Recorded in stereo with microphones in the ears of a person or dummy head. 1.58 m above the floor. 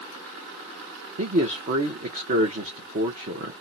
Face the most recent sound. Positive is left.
turn(degrees=-45)  # may be behind; listen again after turning